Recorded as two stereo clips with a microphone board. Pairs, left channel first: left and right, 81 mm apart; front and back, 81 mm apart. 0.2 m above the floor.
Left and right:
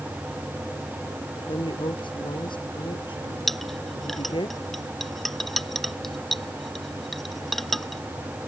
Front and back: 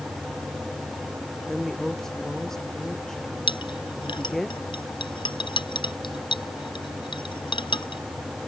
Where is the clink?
5° left.